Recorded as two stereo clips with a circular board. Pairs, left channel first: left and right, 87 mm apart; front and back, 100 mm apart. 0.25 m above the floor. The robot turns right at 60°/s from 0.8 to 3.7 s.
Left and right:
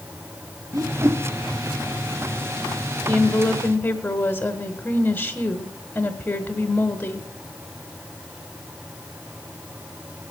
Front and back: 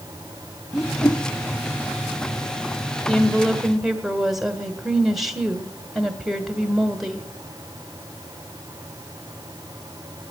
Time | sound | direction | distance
0.7 | a whoosh | 90° right | 0.8 m
3.1 | a woman speaking | 60° left | 1.4 m